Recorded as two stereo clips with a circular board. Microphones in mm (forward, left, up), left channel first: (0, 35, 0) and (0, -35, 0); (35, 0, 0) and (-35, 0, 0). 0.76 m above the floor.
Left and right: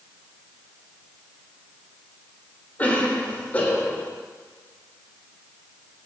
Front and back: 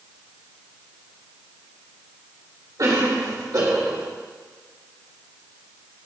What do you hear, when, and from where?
2.8 s a cough: 155° left, 3 m